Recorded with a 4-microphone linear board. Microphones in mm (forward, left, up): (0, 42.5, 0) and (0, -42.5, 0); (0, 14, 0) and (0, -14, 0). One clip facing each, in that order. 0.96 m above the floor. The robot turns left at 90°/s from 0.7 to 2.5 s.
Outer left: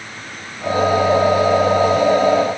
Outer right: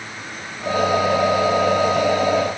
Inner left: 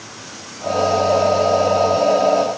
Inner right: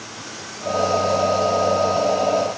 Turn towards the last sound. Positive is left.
No sound to turn to.